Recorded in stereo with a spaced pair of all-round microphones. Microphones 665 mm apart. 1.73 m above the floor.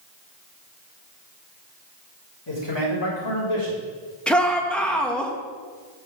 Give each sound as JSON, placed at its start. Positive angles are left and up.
{"t": 2.5, "sound": "a man speaking", "side_deg": 40, "distance_m": 5.0}
{"t": 4.3, "sound": "a shout", "side_deg": 0, "distance_m": 1.8}